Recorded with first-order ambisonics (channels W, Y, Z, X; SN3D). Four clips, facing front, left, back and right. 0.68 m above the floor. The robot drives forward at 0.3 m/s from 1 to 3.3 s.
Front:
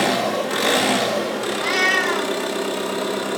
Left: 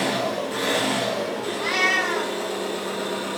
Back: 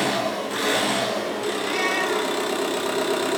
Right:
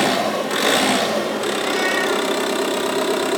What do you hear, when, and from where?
0.0 s an engine running: 65° right, 1.0 m; by 3.4 s 105° right, 1.0 m
1.6 s a cat meowing: 20° left, 1.5 m; by 2.4 s 25° left, 1.3 m